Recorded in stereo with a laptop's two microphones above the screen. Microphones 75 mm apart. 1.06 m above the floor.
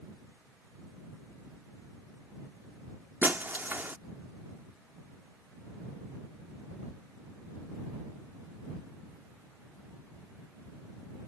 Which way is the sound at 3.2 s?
25° right (ahead or behind).